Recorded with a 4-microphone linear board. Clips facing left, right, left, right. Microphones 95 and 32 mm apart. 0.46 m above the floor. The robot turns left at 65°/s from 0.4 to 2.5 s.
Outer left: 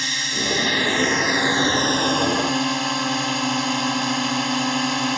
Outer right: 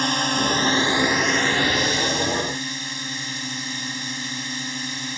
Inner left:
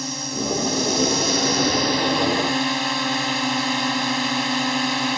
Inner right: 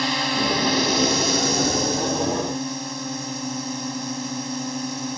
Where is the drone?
130° right; by 5.2 s 95° left.